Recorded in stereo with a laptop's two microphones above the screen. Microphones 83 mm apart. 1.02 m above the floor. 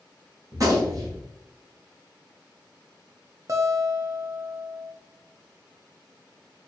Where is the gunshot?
45° right (ahead or behind), 1.2 m.